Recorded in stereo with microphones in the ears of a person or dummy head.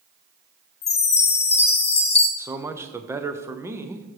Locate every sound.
0.8 s a chime: 25° left (ahead or behind), 0.6 m
2.4 s a man speaking: 10° right (ahead or behind), 0.7 m